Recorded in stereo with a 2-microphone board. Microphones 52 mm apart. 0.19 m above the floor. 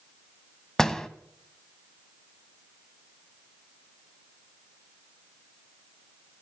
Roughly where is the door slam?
Centre.